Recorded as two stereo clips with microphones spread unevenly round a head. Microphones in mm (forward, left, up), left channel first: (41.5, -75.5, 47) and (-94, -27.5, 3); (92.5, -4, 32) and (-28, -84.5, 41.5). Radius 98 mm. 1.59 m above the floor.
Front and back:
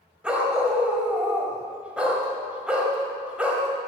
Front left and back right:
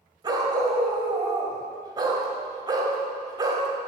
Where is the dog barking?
100° right, 1.8 m.